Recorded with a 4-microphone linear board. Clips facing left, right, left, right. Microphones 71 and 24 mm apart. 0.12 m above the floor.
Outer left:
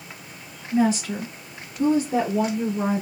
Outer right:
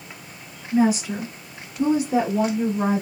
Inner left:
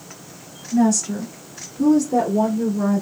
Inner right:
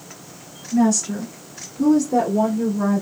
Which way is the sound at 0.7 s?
15° right (ahead or behind).